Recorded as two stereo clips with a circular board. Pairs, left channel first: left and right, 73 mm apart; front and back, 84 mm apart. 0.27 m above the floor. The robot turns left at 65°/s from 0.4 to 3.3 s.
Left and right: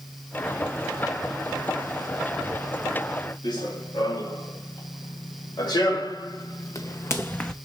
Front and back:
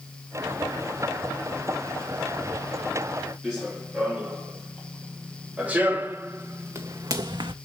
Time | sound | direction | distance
3.4 | running footsteps | 95° left | 4 m